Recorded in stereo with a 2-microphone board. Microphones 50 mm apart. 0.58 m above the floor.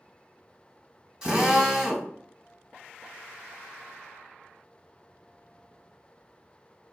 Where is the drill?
20° right (ahead or behind), 1.3 m.